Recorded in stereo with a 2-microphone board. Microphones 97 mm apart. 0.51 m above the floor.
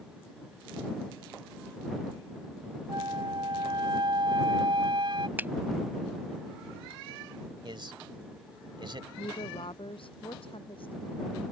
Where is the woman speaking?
65° left (ahead or behind).